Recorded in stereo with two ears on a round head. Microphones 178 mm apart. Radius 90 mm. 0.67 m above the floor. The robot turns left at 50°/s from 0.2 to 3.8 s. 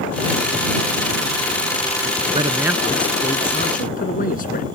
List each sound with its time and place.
2.3 s a man speaking: 155° right; by 4.7 s 135° left